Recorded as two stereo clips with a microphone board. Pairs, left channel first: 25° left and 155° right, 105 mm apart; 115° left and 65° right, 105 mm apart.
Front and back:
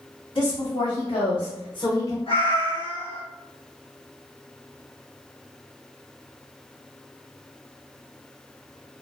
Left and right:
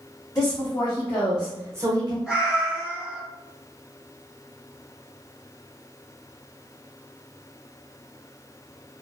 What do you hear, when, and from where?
0.3 s a woman speaking: 55° left, 1.3 m; by 2.2 s 35° right, 0.8 m
2.3 s a cat meowing: 25° left, 1.9 m